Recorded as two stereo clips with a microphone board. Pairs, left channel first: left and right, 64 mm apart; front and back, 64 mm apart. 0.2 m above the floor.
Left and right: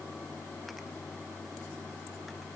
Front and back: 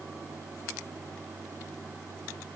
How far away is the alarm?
No alarm in this recording.